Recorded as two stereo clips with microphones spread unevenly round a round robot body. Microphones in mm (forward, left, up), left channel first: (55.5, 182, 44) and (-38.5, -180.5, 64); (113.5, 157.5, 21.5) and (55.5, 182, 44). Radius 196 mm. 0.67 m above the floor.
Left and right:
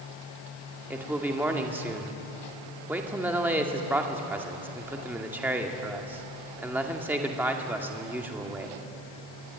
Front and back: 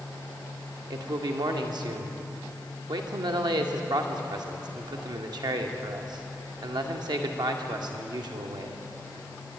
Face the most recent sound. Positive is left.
turn(degrees=170)